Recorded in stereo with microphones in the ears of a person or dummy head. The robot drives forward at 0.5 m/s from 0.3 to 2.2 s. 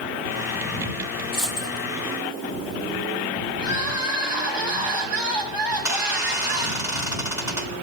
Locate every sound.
1.3 s a dropped coin: centre (ahead or behind), 5.5 m
3.6 s crying: 5° right (ahead or behind), 7 m
5.7 s a squeak: 15° right (ahead or behind), 3 m